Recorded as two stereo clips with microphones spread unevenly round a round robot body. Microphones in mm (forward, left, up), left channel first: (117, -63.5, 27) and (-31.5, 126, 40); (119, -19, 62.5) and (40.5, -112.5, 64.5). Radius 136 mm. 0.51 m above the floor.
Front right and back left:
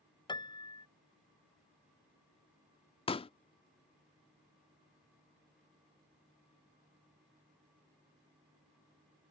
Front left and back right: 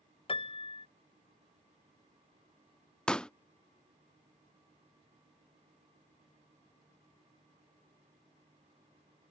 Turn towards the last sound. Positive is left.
turn(degrees=-25)